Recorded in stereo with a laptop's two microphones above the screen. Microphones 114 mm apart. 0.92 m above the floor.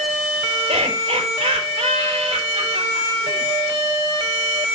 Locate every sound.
0.7 s laughter: 55° right (ahead or behind), 3.5 m